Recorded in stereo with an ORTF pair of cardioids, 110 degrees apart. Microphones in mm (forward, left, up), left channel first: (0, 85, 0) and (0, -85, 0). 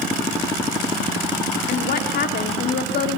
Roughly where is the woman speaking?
Left.